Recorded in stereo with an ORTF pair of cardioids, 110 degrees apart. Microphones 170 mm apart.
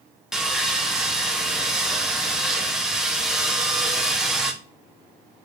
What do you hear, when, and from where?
0.3 s sawing: 5° right, 0.6 m